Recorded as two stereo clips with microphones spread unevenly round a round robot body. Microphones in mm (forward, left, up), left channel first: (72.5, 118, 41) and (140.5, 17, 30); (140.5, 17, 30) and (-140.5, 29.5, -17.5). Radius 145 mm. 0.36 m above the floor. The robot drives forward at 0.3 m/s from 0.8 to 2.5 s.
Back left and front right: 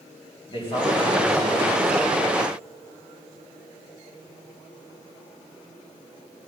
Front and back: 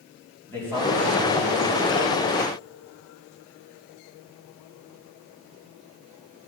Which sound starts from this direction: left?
A man speaking, at 0.5 s.